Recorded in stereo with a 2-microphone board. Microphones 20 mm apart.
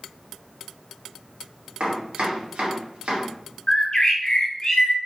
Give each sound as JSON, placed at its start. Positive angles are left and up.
{"t": 1.8, "sound": "chopping", "side_deg": -85, "distance_m": 1.8}
{"t": 3.7, "sound": "a bird", "side_deg": 55, "distance_m": 1.3}